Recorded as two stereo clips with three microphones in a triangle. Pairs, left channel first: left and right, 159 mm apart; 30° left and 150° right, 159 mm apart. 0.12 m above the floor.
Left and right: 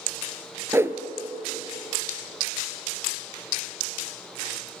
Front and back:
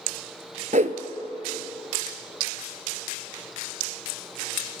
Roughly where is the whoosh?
Behind.